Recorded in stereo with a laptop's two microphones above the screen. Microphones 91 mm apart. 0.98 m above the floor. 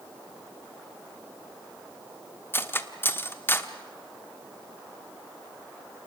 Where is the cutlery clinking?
25° left (ahead or behind), 1.3 m.